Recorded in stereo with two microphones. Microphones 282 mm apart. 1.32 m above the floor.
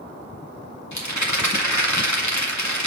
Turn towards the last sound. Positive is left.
turn(degrees=90)